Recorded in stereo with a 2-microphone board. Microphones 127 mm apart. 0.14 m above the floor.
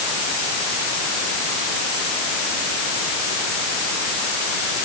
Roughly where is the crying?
No crying in this recording.